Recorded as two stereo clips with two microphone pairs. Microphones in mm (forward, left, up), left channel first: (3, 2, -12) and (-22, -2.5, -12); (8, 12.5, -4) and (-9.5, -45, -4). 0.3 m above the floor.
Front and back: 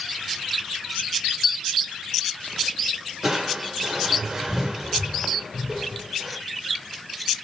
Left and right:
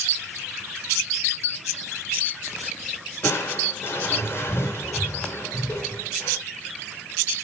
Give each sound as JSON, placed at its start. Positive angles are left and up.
{"t": 3.2, "sound": "crushing", "azimuth_deg": 115, "distance_m": 3.5}